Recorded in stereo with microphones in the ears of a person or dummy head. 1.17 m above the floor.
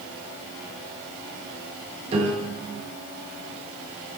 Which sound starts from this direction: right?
A piano, at 2.1 s.